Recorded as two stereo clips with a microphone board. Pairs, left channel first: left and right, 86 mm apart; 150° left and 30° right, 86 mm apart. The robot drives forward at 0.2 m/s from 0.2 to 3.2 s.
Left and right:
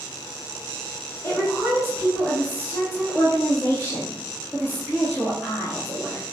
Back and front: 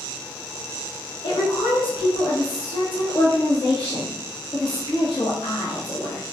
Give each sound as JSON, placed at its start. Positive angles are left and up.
{"t": 1.2, "sound": "a woman speaking", "azimuth_deg": 140, "distance_m": 1.0}